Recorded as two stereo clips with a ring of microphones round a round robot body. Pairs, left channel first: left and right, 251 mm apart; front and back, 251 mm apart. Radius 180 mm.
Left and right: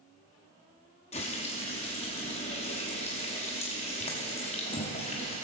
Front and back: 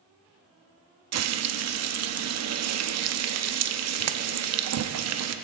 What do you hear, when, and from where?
1.1 s frying: 160° left, 0.7 m